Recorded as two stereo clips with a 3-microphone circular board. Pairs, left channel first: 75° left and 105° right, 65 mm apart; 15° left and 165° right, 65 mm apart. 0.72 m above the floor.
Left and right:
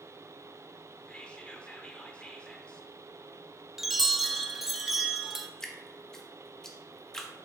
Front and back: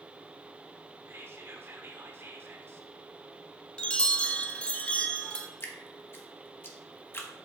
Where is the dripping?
5° right, 1.2 m.